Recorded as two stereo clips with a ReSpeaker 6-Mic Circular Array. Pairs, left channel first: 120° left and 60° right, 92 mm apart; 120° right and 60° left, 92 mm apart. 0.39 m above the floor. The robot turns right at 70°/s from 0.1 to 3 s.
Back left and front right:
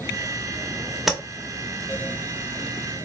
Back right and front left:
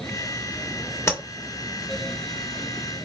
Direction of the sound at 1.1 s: 145° right.